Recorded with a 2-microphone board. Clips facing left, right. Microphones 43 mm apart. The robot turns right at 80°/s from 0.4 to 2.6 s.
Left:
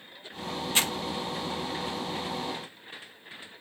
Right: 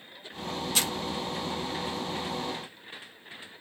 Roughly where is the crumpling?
Left.